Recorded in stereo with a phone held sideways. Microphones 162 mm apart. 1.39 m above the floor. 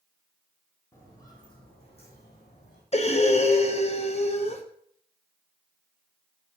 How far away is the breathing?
About 0.7 m.